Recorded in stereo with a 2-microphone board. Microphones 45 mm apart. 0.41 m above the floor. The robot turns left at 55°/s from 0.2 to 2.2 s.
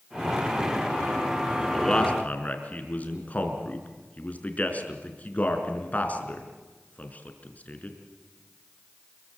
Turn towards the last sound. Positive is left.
turn(degrees=35)  # may be behind; listen again after turning